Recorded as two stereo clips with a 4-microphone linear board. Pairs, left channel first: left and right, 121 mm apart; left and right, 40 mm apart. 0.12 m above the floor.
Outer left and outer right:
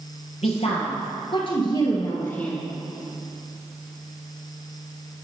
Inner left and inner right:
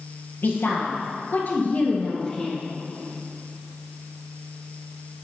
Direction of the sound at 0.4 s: 65° left (ahead or behind).